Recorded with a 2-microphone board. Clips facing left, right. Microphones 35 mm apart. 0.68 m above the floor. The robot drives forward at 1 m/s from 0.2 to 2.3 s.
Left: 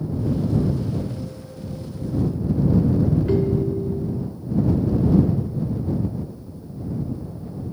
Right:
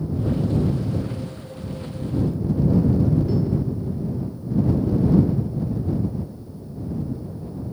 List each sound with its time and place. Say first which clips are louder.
3.3 s a ringtone: left 3 dB; 45° left (ahead or behind), 1.1 m